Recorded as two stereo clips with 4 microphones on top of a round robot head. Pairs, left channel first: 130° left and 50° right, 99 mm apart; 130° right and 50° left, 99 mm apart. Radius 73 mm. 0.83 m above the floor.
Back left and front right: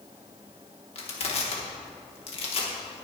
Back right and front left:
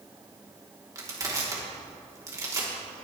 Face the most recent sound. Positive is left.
turn(degrees=110)